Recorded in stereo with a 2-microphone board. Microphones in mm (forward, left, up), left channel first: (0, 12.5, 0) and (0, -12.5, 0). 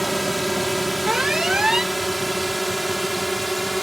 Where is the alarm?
35° right (ahead or behind).